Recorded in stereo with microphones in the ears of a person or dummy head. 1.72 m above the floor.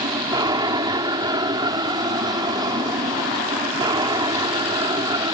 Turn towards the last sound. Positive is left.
turn(degrees=-25)  # may be behind; listen again after turning